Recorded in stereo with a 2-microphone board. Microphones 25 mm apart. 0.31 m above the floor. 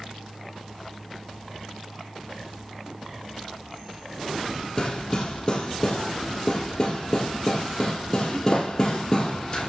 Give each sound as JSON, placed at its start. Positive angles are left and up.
{"t": 4.8, "sound": "hammering", "side_deg": 20, "distance_m": 2.5}